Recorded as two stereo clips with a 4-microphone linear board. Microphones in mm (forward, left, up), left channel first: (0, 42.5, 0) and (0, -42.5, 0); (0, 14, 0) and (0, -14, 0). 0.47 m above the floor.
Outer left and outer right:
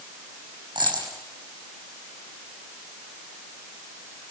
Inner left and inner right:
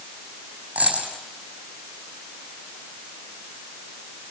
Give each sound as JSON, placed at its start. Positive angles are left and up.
{"t": 0.8, "sound": "a dropped coin", "side_deg": -65, "distance_m": 6.0}